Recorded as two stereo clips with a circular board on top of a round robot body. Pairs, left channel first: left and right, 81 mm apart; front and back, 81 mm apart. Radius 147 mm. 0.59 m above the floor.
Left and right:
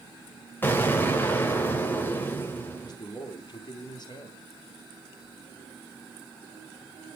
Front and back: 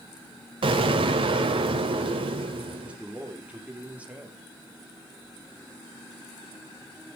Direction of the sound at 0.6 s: 155° left.